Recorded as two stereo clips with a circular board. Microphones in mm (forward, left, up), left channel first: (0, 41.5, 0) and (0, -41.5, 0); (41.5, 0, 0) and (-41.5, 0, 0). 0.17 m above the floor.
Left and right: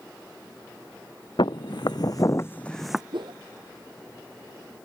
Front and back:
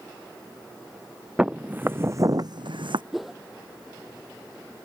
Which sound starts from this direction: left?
Footsteps, at 1.4 s.